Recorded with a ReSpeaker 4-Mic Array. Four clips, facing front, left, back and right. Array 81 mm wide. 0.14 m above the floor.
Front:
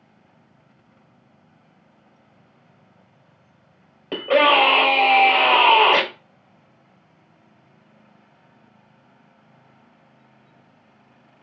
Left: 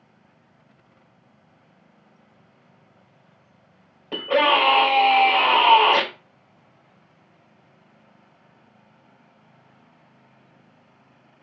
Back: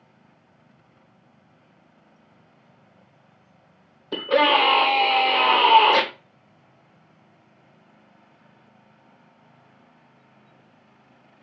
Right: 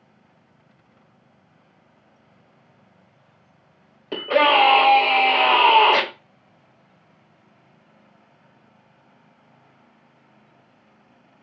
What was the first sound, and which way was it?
A scream, 15° right.